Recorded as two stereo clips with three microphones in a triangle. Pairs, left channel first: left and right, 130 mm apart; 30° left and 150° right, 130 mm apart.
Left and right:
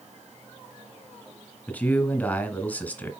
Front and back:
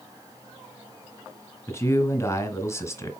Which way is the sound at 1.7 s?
35° left.